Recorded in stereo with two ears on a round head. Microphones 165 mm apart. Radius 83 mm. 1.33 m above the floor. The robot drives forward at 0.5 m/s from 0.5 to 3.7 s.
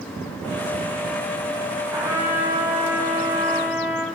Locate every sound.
1.9 s a trumpet: 15° right (ahead or behind), 7.5 m